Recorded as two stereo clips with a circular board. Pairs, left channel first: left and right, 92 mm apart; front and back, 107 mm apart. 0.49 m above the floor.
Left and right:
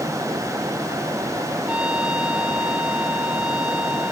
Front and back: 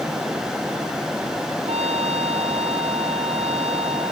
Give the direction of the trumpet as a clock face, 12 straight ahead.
6 o'clock.